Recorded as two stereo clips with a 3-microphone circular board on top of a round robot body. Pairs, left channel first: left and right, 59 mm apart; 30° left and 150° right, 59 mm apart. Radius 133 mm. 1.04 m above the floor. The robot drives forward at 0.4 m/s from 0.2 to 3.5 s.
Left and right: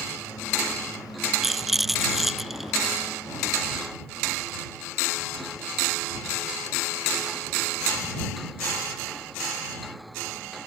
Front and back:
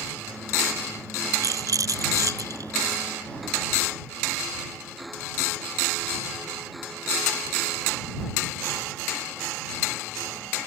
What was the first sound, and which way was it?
A rattle, straight behind.